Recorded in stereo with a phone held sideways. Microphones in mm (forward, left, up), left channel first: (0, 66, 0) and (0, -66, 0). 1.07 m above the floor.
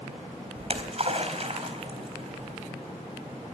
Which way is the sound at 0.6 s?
50° right (ahead or behind).